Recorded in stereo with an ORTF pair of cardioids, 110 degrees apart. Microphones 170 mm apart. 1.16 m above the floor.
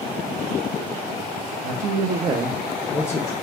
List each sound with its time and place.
1.6 s a man speaking: 60° right, 0.6 m; by 3.3 s 25° left, 0.7 m